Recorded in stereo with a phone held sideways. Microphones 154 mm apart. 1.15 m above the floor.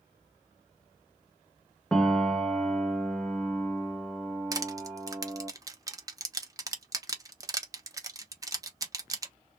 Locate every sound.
1.9 s a piano: 5° left (ahead or behind), 0.6 m
4.5 s crushing: 20° right (ahead or behind), 0.6 m